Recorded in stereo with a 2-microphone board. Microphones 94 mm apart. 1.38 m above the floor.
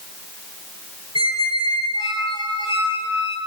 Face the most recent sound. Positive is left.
turn(degrees=60)  # may be behind; listen again after turning